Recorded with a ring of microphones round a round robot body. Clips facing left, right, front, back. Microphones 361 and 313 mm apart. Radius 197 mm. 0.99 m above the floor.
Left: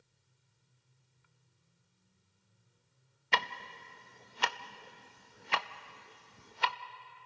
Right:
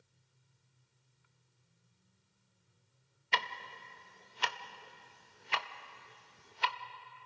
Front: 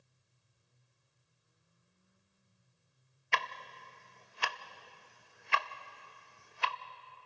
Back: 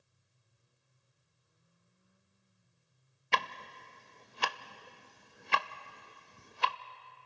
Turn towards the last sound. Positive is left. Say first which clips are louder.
# left 3 dB, back 3 dB
turn(degrees=130)